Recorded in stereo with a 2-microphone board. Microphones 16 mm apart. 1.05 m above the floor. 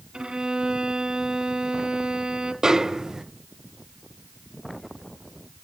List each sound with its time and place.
0.1 s a violin: 60° right (ahead or behind), 1.6 m
2.6 s a snare drum: 40° right (ahead or behind), 0.6 m